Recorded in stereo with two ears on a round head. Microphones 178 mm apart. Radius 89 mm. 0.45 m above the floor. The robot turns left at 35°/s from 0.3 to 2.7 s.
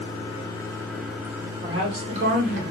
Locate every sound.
0.0 s running water: 30° left, 0.9 m; by 2.7 s 55° right, 0.9 m
1.6 s a woman speaking: 45° right, 1.0 m; by 2.6 s 85° right, 1.0 m